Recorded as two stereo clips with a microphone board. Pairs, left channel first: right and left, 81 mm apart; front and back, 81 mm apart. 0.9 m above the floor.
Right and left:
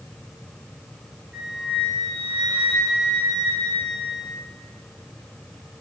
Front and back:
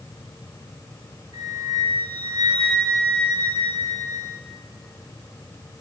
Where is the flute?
165° left, 5.5 m.